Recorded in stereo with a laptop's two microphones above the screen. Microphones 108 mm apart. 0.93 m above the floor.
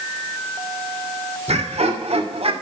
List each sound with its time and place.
1.5 s laughter: 75° right (ahead or behind), 3 m; by 2.5 s 60° right (ahead or behind), 2.5 m